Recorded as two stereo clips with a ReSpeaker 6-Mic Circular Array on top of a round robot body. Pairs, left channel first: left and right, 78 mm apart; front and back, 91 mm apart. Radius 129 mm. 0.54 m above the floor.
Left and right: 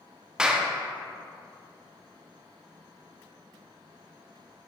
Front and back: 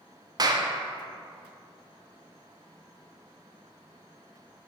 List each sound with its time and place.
0.4 s a clap: 165° right, 0.9 m